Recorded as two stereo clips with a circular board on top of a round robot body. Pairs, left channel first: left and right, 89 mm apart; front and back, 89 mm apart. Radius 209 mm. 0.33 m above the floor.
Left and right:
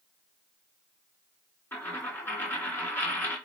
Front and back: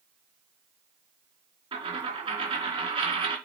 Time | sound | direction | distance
1.7 | a dropped coin | 155° left | 2.5 m